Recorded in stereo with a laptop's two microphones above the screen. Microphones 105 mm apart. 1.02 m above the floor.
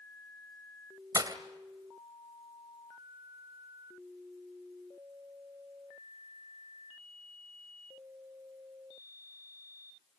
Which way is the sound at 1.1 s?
40° right (ahead or behind).